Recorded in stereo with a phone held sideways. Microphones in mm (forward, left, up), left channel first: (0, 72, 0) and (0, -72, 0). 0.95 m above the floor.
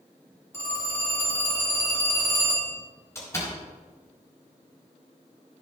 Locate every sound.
0.5 s a phone ringing: 20° left (ahead or behind), 2.5 m
3.1 s a door slam: 20° left (ahead or behind), 4 m